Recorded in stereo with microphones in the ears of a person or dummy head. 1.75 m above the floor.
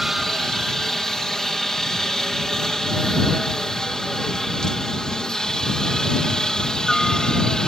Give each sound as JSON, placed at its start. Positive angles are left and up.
{"t": 0.0, "sound": "a helicopter", "side_deg": 0}